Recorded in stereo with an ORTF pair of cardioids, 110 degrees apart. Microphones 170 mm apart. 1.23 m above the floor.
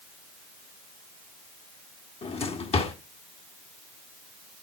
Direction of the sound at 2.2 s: 35° left.